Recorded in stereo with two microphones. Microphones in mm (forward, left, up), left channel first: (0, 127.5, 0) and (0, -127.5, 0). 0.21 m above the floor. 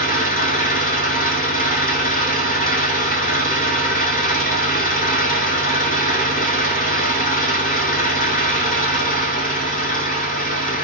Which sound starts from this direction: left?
An engine running, at 0.0 s.